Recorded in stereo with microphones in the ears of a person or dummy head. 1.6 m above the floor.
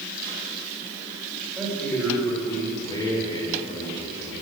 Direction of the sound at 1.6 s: Centre (ahead or behind).